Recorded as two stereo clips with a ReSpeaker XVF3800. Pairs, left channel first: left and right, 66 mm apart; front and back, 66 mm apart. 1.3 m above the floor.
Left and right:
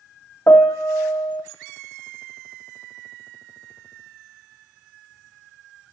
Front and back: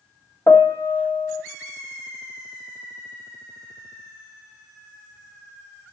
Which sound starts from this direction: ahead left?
A piano, at 0.5 s.